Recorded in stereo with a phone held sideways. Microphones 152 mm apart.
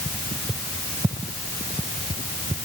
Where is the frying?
No frying in this recording.